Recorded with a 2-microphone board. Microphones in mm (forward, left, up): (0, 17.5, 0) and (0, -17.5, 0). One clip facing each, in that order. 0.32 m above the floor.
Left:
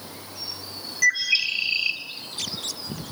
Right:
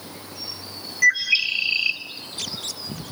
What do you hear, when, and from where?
1.0 s a bird: 10° right (ahead or behind), 1.9 m